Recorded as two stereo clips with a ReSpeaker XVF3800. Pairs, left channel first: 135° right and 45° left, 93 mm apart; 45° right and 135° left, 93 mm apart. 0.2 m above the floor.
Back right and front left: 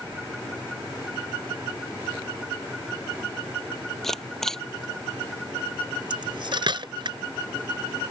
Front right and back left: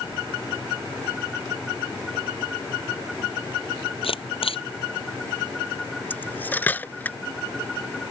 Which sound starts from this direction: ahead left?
Cutlery clinking, at 6.1 s.